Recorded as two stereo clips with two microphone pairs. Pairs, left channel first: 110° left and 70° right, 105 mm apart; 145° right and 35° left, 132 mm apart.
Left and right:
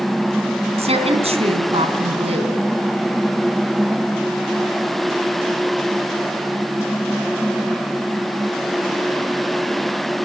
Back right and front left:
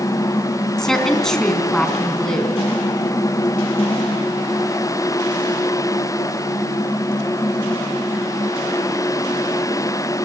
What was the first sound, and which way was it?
A woman speaking, 55° right.